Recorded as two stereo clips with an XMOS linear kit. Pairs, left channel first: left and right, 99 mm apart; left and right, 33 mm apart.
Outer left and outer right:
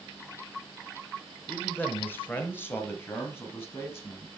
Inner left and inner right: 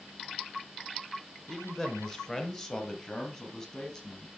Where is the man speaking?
15° left (ahead or behind), 1.3 m; by 4.3 s 25° left (ahead or behind), 3.5 m.